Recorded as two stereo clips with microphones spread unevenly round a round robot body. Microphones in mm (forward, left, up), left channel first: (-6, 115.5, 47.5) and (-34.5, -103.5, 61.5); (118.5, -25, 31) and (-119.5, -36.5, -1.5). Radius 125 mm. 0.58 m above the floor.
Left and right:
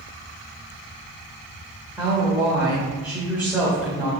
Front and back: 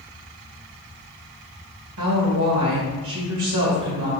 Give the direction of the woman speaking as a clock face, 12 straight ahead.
6 o'clock.